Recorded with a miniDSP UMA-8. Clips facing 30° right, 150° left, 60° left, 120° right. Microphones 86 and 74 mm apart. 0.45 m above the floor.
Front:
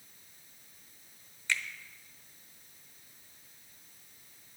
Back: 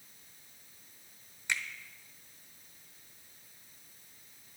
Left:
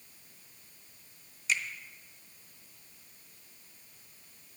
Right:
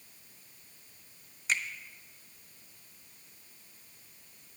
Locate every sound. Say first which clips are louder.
1.5 s a finger snap: front 1 dB, even; 145° right, 0.9 m